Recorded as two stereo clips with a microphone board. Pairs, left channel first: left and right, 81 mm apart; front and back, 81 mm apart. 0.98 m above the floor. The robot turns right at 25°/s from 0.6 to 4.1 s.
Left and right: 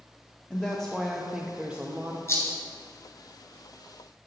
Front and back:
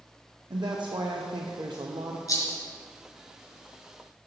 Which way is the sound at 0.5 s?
165° left.